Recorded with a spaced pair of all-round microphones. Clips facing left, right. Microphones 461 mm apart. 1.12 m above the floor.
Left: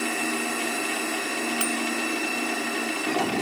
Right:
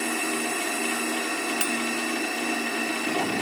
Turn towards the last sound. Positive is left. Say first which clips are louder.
# left 1 dB
turn(degrees=-10)  # may be behind; listen again after turning